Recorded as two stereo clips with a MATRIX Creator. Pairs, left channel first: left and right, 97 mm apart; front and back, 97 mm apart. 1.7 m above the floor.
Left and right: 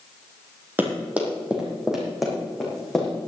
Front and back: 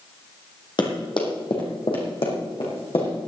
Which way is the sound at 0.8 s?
25° right.